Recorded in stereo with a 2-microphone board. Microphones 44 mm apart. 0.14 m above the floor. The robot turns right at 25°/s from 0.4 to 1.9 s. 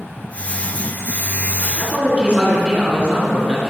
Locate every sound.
1.8 s a man speaking: 25° right (ahead or behind), 2.0 m; by 3.7 s 30° right (ahead or behind), 2.0 m